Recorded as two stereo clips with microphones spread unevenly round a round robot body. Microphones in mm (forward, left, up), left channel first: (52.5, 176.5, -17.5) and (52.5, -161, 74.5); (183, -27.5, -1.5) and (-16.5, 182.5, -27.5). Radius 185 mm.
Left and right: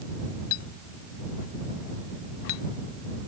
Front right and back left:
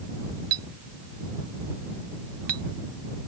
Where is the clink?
135° left.